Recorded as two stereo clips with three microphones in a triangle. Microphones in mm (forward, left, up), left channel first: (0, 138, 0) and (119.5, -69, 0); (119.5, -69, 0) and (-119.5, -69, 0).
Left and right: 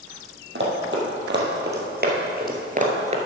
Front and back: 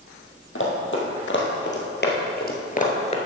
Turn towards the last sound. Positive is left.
turn(degrees=-35)